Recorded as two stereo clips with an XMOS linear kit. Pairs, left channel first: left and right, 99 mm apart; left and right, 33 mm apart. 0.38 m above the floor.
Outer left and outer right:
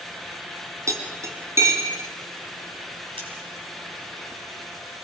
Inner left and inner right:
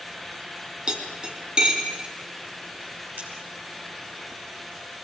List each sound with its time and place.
0.9 s cutlery clinking: 30° right (ahead or behind), 2.5 m
3.2 s scissors: 70° right (ahead or behind), 6 m